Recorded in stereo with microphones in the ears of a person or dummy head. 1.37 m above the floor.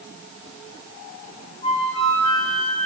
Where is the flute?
25° left (ahead or behind), 2.5 m.